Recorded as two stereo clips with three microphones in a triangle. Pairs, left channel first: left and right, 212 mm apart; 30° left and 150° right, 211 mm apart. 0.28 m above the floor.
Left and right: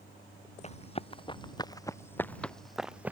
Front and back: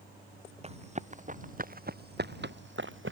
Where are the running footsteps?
150° left; by 3.1 s 170° right.